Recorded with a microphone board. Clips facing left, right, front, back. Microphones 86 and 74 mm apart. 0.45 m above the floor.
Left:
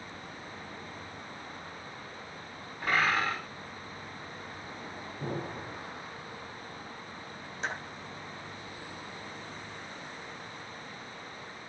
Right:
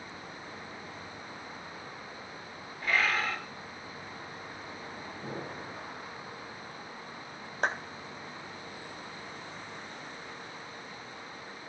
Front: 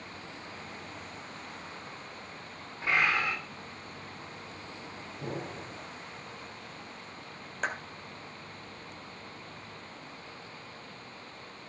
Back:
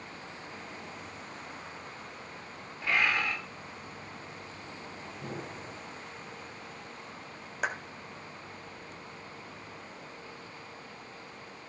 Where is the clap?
100° right, 1.9 m.